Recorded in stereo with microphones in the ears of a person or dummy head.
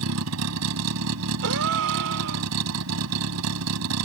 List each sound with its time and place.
0.0 s a vehicle: 80° right
1.4 s a gasp: 65° right (ahead or behind)